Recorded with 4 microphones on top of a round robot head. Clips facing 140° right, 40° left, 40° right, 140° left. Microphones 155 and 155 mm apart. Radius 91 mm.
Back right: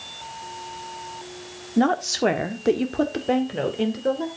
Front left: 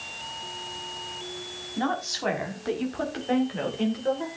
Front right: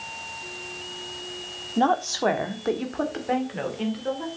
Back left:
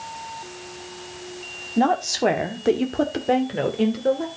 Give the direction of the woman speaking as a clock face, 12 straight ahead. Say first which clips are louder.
Back right 9 dB, back left 2 dB; 5 o'clock.